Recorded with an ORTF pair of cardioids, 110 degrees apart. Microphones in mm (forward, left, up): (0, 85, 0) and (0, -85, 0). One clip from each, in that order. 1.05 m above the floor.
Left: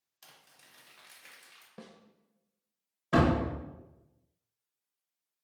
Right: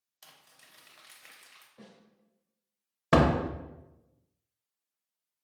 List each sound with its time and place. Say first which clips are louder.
0.2 s crumpling: right 1 dB; 10° right, 0.8 m
1.8 s a snare drum: left 6 dB; 65° left, 0.5 m
3.1 s a door slam: right 3 dB; 65° right, 0.5 m